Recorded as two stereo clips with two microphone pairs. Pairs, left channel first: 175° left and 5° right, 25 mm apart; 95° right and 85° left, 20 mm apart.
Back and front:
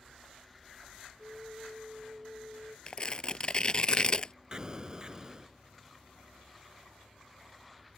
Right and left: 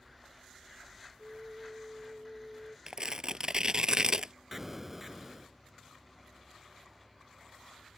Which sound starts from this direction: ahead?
An explosion, at 4.5 s.